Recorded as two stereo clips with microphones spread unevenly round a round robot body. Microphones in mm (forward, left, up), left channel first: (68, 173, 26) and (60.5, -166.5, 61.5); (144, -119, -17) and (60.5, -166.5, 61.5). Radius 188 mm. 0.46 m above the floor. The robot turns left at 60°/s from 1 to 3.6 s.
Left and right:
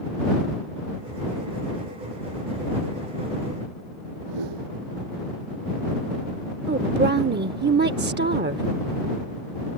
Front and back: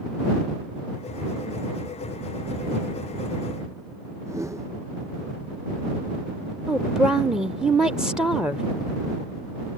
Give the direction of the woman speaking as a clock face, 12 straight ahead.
1 o'clock.